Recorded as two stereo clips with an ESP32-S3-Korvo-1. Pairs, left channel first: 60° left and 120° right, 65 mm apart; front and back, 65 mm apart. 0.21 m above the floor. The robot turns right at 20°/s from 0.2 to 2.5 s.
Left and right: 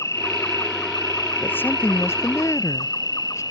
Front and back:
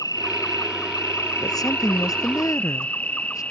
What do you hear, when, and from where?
0.0 s an insect: 20° left; by 3.5 s 70° left
1.4 s a woman speaking: straight ahead; by 3.4 s 20° left